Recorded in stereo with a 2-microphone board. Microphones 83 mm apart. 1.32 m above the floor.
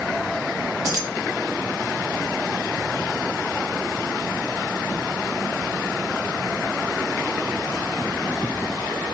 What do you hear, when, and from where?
0.8 s keys jangling: 45° right (ahead or behind), 1.1 m